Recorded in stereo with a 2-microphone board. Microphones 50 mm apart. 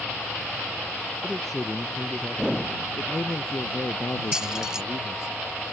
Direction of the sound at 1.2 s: 10° left (ahead or behind).